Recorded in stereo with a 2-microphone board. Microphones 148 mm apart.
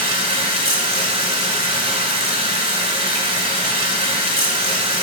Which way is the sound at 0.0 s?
40° right (ahead or behind).